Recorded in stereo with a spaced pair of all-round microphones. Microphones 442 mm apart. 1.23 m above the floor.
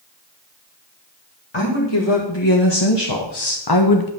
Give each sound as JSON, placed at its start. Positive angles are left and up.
{"t": 1.5, "sound": "a woman speaking", "side_deg": 75, "distance_m": 2.0}